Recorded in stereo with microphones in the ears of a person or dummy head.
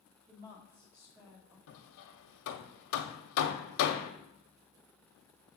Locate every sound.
0.3 s a woman speaking: 15° right (ahead or behind), 1.4 m
1.7 s hammering: 70° left (ahead or behind), 0.8 m